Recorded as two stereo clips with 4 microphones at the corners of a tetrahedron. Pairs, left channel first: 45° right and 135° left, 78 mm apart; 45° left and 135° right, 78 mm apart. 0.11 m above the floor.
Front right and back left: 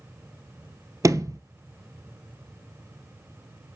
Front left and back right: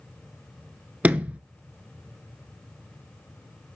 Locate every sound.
1.0 s a sliding door: 155° left, 0.8 m